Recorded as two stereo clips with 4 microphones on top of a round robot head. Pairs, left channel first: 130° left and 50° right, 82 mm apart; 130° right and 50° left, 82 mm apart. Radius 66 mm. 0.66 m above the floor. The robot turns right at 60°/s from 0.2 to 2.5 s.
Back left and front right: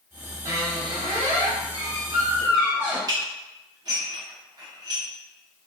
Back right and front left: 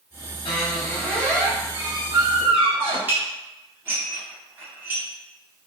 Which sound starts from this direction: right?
A squeak, at 0.5 s.